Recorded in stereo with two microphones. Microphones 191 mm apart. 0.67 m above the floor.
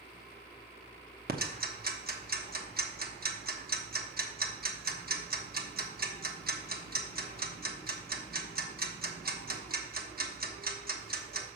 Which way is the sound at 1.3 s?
55° right (ahead or behind).